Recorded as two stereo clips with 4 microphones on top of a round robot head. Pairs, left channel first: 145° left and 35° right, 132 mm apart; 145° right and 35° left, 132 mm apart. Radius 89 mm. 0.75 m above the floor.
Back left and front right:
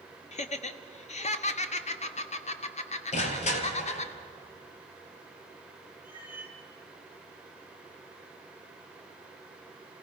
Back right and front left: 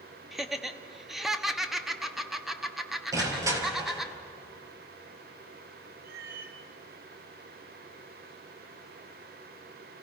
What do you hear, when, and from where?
0.3 s laughter: 125° left, 1.4 m
3.1 s crushing: 105° left, 3 m
6.0 s a cat meowing: 40° left, 3 m